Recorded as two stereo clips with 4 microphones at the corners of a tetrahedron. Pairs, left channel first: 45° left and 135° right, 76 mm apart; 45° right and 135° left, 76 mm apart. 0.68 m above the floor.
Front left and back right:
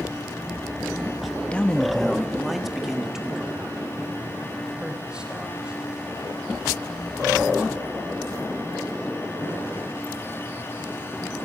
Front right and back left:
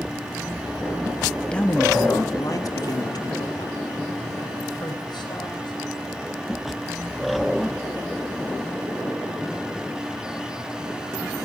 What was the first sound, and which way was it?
A man speaking, 5° left.